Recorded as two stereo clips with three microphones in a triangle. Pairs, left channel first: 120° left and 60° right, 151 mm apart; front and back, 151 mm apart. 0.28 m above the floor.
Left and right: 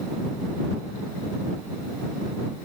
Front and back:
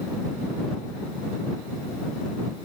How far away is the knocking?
I don't hear knocking.